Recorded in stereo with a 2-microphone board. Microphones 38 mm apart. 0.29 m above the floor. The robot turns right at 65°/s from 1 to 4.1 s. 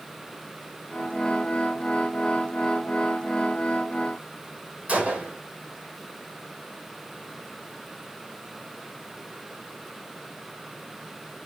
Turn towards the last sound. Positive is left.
turn(degrees=-35)  # may be behind; listen again after turning